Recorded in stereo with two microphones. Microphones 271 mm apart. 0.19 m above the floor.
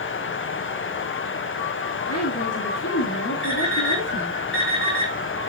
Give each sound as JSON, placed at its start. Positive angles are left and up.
{"t": 2.1, "sound": "a woman speaking", "side_deg": 65, "distance_m": 4.0}
{"t": 3.4, "sound": "an alarm clock", "side_deg": 50, "distance_m": 6.0}